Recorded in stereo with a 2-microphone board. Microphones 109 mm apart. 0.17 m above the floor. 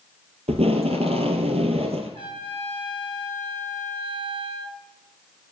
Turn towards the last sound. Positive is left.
turn(degrees=-55)  # may be behind; listen again after turning